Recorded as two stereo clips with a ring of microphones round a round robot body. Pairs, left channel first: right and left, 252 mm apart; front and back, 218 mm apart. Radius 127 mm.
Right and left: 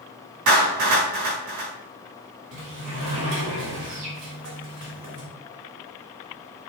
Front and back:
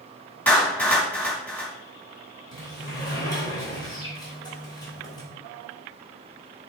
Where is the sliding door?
70° left, 3 m.